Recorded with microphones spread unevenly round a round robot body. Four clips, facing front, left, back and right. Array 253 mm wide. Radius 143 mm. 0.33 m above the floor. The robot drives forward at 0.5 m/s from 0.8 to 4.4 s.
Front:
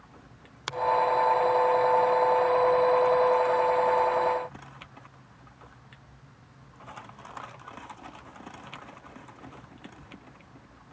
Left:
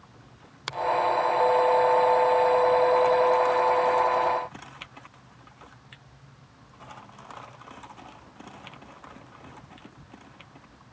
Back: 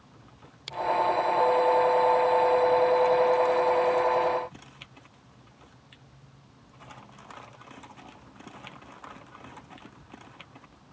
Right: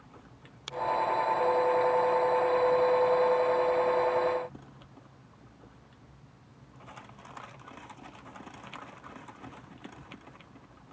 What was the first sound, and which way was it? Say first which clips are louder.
A finger snap: left 4 dB, front 3 dB; 40° left.